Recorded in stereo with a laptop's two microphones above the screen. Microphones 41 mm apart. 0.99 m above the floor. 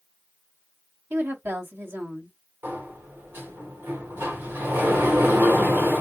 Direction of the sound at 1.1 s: 70° right (ahead or behind).